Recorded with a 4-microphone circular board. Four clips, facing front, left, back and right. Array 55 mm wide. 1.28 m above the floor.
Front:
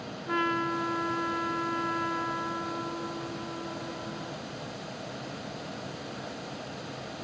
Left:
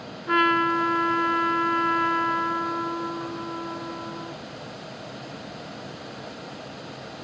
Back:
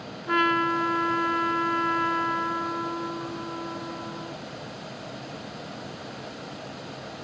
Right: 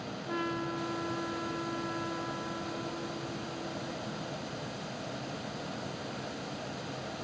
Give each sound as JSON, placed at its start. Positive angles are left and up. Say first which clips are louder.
{"t": 0.3, "sound": "a trumpet", "louder": "left 15 dB, back 6 dB", "azimuth_deg": 115}